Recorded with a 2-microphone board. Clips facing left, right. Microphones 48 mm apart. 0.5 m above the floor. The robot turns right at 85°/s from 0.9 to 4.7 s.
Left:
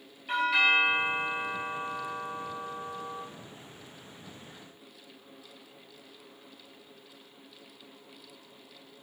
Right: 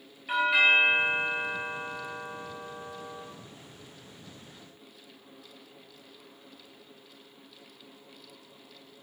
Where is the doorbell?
10° right (ahead or behind), 1.4 m; by 3.2 s 15° left (ahead or behind), 1.4 m.